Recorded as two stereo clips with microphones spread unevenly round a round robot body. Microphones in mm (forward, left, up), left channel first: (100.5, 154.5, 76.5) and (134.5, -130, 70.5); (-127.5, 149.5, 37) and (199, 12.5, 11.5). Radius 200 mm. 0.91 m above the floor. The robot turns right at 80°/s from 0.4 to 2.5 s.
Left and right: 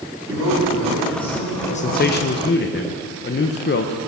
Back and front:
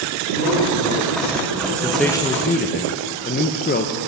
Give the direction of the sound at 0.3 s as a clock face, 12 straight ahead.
2 o'clock.